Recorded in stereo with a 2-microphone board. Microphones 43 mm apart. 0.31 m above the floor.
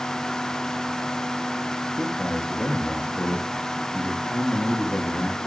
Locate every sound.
2.0 s a man speaking: 60° left (ahead or behind), 5.5 m